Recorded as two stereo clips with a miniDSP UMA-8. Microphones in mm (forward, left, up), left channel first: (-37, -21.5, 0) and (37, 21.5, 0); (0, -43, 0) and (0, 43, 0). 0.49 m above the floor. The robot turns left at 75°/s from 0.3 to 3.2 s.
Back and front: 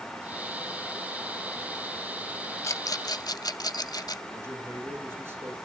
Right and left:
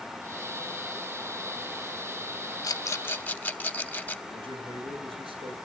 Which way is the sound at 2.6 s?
110° right.